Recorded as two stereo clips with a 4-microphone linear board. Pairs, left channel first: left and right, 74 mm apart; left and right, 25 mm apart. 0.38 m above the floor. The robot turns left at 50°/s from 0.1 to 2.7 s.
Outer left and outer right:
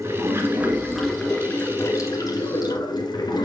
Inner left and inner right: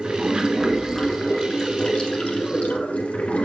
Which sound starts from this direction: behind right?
Running water, at 0.0 s.